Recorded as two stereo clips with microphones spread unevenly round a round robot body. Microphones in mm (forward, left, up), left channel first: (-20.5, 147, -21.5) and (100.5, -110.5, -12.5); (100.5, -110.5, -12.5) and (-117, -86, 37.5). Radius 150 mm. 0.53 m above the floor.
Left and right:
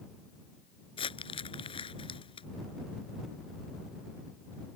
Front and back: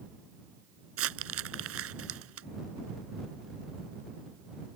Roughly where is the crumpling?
Behind.